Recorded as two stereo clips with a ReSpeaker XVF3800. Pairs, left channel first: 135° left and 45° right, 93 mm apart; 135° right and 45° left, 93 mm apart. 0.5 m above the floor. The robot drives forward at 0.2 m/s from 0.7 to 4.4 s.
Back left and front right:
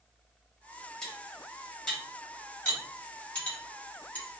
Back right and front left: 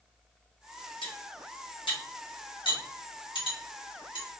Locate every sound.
1.0 s cutlery clinking: 140° right, 1.7 m; by 4.3 s 150° right, 2 m